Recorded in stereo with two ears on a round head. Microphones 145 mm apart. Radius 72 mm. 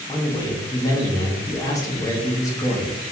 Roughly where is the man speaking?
Left.